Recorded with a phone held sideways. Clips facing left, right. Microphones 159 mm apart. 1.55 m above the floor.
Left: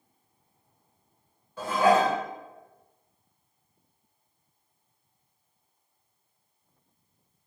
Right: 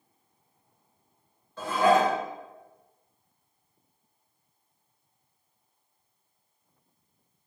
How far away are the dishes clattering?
About 1.0 m.